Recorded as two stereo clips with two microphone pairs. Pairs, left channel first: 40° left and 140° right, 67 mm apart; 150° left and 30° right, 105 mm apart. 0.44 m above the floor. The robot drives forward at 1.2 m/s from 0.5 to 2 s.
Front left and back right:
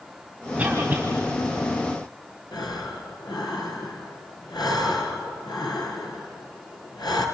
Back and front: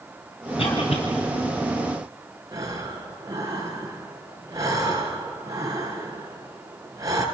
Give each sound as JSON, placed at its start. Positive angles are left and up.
{"t": 0.6, "sound": "a cough", "azimuth_deg": 160, "distance_m": 2.5}
{"t": 2.5, "sound": "breathing", "azimuth_deg": 30, "distance_m": 3.0}